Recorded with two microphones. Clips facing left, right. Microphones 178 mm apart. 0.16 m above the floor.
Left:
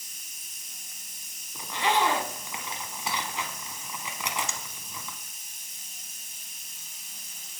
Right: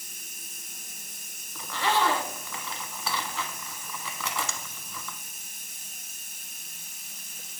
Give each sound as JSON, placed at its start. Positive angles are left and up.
{"t": 0.0, "sound": "running water", "side_deg": -60, "distance_m": 0.9}
{"t": 1.6, "sound": "a zipper", "side_deg": 20, "distance_m": 0.7}